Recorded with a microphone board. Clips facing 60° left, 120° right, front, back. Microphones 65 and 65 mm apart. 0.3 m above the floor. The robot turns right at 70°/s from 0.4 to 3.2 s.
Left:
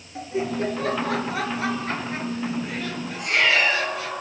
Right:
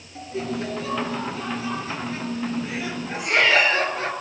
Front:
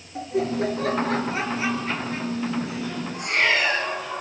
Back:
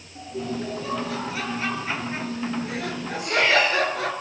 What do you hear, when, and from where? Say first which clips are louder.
0.1 s laughter: left 3 dB, front 6 dB; 10° right, 5 m; by 4.1 s 170° right, 5 m
3.1 s a cat meowing: right 2 dB, back 2 dB; 40° right, 9.5 m; by 3.9 s 35° right, 9.5 m